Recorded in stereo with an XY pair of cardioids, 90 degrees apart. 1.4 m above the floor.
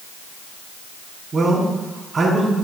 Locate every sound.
1.3 s a man speaking: 40° right, 3.5 m